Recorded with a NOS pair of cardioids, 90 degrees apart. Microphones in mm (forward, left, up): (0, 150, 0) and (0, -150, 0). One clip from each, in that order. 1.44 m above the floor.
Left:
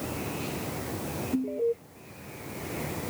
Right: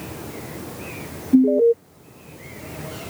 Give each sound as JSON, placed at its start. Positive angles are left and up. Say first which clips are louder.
{"t": 1.3, "sound": "an alarm", "louder": "right 14 dB", "azimuth_deg": -60}